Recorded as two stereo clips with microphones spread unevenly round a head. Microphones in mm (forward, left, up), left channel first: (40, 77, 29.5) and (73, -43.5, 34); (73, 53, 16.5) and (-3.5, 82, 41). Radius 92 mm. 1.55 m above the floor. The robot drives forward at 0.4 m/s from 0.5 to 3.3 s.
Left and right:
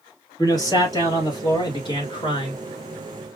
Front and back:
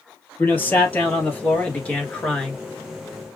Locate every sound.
0.4 s a man speaking: 45° left, 3 m; by 2.6 s 55° left, 2.5 m